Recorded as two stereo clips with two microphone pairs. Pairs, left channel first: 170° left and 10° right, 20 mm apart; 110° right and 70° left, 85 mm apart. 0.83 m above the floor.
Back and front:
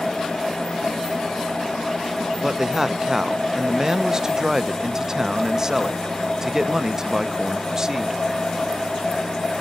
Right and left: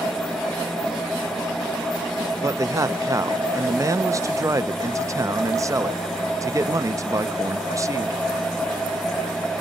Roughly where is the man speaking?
Ahead left.